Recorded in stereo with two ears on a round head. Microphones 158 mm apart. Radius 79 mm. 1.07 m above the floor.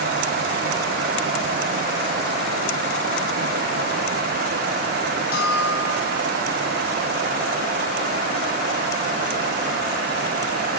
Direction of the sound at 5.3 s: 55° left (ahead or behind).